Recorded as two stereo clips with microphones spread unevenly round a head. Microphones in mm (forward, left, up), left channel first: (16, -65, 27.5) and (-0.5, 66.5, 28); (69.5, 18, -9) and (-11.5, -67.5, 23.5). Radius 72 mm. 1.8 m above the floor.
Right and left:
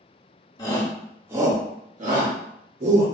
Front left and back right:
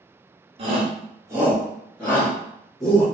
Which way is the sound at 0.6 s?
150° right.